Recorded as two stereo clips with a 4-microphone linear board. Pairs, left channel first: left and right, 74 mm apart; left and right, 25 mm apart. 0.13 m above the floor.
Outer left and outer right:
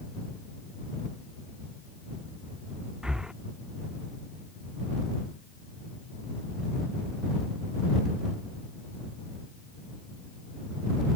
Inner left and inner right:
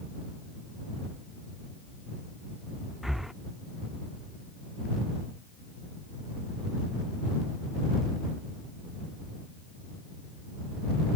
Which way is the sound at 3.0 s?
10° right (ahead or behind).